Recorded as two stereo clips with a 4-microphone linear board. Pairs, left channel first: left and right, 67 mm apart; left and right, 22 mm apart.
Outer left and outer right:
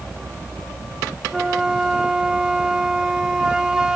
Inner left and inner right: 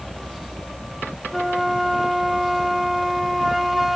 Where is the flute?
10° right (ahead or behind), 0.7 m.